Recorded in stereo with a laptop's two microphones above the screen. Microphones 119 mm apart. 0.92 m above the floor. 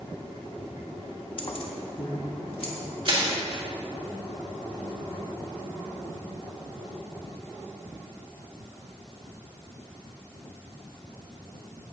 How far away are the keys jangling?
About 1.0 m.